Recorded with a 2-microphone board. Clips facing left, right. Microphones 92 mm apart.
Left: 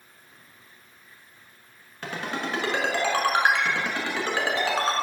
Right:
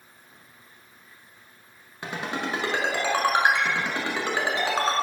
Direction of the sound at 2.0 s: 15° right (ahead or behind).